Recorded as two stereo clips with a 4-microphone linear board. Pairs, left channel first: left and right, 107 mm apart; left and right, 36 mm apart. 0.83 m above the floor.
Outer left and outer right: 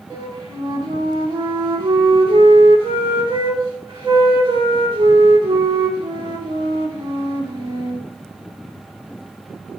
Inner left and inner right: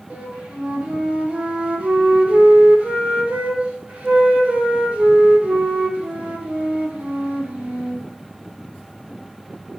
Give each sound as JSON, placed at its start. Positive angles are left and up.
{"t": 0.1, "sound": "a flute", "side_deg": -50, "distance_m": 1.6}